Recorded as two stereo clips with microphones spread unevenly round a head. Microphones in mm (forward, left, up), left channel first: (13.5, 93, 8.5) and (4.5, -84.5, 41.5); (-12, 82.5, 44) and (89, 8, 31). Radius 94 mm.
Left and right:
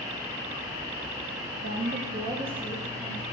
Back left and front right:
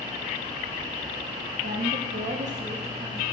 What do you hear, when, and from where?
1.6 s a woman speaking: 55° right, 0.9 m; by 3.2 s 5° left, 1.6 m